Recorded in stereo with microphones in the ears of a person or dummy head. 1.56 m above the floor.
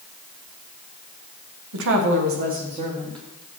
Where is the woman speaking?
70° right (ahead or behind), 1.3 m; by 3.2 s 15° right (ahead or behind), 1.7 m.